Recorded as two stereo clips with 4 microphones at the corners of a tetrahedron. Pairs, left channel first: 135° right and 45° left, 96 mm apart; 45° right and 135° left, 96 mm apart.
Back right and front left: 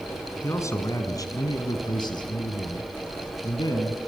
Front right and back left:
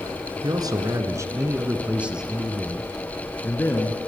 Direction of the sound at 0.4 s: 170° left.